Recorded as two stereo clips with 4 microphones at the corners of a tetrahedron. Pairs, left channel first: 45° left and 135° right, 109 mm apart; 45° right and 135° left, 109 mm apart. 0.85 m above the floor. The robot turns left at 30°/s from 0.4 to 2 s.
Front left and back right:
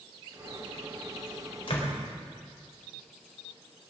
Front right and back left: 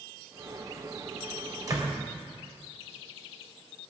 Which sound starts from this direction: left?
A door slam, at 1.7 s.